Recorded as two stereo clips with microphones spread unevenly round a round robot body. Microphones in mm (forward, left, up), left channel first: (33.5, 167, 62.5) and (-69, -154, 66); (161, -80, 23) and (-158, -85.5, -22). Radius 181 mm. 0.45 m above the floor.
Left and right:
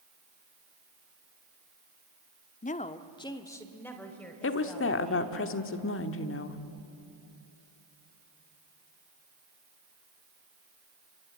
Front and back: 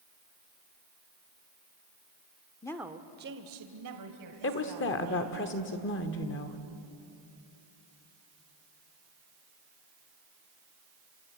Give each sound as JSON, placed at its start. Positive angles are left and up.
{"t": 2.6, "sound": "a woman speaking", "azimuth_deg": 80, "distance_m": 0.9}
{"t": 4.4, "sound": "a woman speaking", "azimuth_deg": 50, "distance_m": 1.3}